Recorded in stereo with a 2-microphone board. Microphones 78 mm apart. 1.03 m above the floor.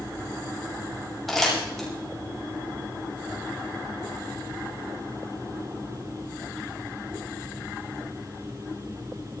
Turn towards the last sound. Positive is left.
turn(degrees=0)  # may be behind; listen again after turning